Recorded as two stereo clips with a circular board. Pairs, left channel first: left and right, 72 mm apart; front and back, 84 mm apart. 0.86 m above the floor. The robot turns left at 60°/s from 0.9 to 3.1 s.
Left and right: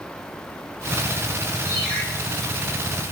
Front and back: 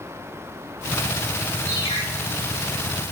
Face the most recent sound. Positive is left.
turn(degrees=-40)